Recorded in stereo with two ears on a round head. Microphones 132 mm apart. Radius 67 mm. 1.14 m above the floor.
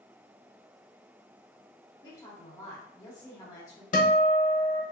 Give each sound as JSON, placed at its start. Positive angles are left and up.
{"t": 2.0, "sound": "a woman speaking", "side_deg": 25, "distance_m": 1.5}
{"t": 3.9, "sound": "a guitar", "side_deg": 60, "distance_m": 0.7}